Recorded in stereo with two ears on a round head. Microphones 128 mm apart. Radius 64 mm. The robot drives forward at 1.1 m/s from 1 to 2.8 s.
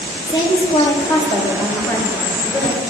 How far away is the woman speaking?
About 1.9 m.